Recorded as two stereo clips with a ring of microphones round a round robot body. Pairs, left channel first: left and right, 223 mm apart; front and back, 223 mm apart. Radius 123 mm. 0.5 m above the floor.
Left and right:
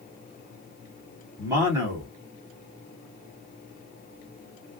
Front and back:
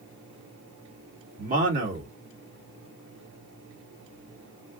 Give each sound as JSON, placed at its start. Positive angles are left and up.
{"t": 1.4, "sound": "a man speaking", "azimuth_deg": -160, "distance_m": 1.5}